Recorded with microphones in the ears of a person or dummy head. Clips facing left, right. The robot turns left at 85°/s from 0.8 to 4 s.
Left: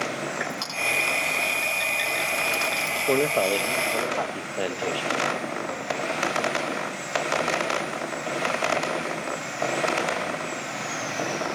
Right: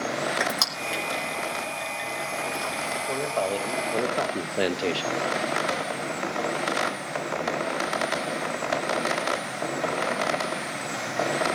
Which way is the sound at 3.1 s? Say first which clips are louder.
Left 6 dB; 55° left.